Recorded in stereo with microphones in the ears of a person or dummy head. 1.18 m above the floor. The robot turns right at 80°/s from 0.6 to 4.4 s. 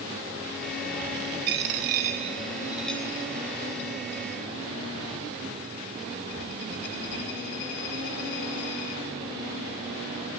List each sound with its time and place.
1.5 s a dropped coin: 40° right (ahead or behind), 0.6 m; by 9.0 s 40° left (ahead or behind), 0.6 m